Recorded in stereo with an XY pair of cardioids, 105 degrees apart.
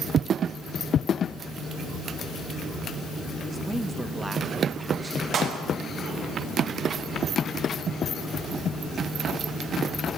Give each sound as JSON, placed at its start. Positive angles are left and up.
{"t": 3.5, "sound": "a man speaking", "azimuth_deg": -15, "distance_m": 3.5}
{"t": 5.3, "sound": "a clap", "azimuth_deg": -65, "distance_m": 6.0}